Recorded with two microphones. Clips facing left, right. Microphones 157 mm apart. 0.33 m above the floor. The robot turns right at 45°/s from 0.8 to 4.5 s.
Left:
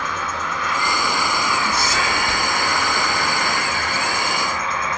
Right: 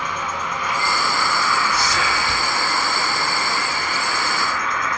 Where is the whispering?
20° left (ahead or behind), 1.5 m; by 2.5 s 25° left (ahead or behind), 1.5 m.